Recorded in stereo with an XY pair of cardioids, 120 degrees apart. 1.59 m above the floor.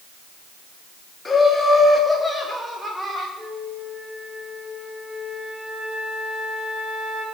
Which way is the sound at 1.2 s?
25° left.